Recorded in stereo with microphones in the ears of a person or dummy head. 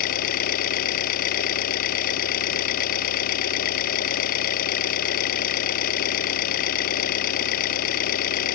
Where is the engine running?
50° left (ahead or behind).